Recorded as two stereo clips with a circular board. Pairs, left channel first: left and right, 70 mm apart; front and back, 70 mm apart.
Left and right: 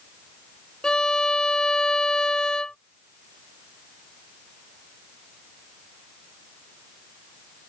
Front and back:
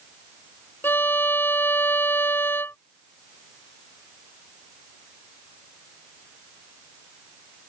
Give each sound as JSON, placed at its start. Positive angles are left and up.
{"t": 0.8, "sound": "a violin", "azimuth_deg": 20}